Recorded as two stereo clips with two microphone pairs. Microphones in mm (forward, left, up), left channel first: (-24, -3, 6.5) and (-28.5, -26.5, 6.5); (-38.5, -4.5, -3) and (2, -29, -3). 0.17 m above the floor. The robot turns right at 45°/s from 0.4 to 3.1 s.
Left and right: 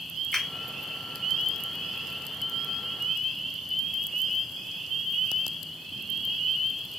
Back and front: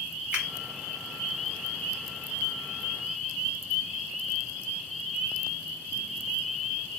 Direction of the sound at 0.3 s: 25° left.